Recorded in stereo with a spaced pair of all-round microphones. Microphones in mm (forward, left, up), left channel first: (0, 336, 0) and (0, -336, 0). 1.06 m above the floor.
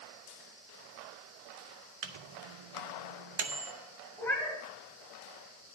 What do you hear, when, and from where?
2.0 s a microwave: 45° right (ahead or behind), 0.6 m
4.2 s a cat meowing: 5° left (ahead or behind), 1.4 m